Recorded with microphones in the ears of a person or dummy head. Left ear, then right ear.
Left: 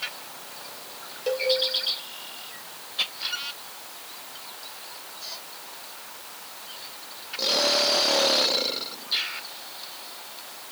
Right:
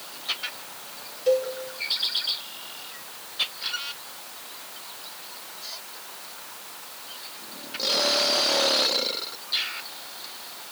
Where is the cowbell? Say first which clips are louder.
Right 3 dB; 15° left (ahead or behind), 4 m.